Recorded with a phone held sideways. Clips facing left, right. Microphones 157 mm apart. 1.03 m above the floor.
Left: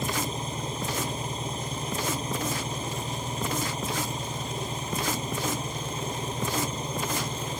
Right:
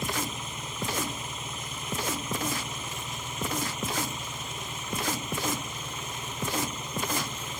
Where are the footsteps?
No footsteps in this recording.